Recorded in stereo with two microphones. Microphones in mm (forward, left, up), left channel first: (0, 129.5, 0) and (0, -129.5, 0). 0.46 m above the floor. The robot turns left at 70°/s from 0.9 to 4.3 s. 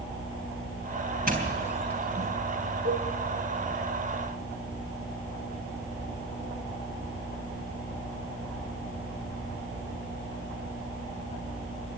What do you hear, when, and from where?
1.3 s a doorbell: 35° right (ahead or behind), 3.5 m; by 2.3 s 30° left (ahead or behind), 3.5 m
2.9 s a cowbell: 50° right (ahead or behind), 7 m; by 3.1 s 35° right (ahead or behind), 7 m